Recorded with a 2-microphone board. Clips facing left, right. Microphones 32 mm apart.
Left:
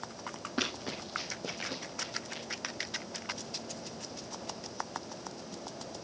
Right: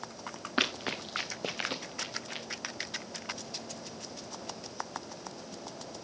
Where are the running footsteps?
50° right (ahead or behind), 1.6 m; by 2.5 s 40° right (ahead or behind), 2.5 m.